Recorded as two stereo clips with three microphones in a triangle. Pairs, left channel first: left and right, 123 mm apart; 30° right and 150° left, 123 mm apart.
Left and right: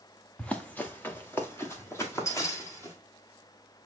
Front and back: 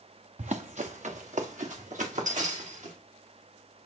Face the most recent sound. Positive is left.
turn(degrees=155)